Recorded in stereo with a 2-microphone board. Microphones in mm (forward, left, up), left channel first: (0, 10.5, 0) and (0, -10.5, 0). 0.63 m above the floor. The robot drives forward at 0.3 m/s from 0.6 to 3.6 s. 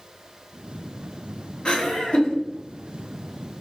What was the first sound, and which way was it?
Laughter, 50° left (ahead or behind).